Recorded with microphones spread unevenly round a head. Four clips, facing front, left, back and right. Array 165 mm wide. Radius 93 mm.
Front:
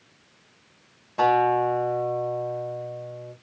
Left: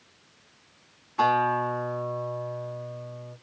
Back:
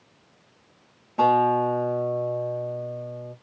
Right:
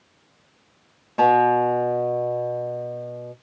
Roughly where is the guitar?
Right.